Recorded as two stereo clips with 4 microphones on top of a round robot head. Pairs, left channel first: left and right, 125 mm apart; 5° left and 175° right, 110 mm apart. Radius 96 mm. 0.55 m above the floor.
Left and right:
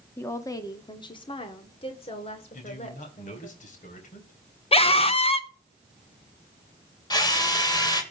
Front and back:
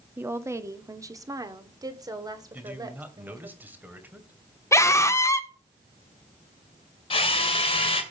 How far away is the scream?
About 1.6 m.